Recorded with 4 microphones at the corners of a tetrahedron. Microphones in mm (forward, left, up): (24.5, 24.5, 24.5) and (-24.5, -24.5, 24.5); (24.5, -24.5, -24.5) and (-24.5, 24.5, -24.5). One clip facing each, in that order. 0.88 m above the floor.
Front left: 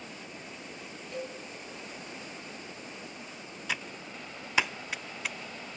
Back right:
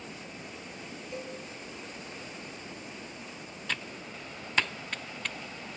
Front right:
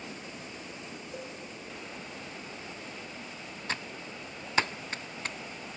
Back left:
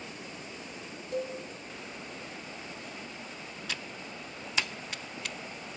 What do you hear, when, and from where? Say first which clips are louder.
1.1 s a cowbell: front left 2 dB, back left 11 dB; 155° left, 7 m
3.7 s typing on a keyboard: front left 1 dB, front right 4 dB; 30° right, 0.6 m